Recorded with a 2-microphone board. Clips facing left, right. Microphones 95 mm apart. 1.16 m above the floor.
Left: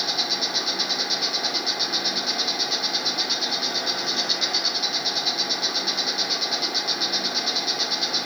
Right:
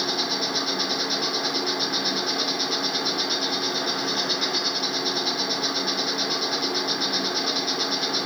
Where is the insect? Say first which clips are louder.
Right 3 dB; 40° right (ahead or behind), 1.8 m.